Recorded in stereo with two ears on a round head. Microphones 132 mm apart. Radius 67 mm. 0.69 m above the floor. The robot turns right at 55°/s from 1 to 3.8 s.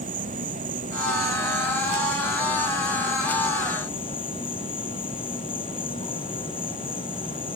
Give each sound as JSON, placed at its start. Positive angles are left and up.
{"t": 0.0, "sound": "an insect", "azimuth_deg": -120}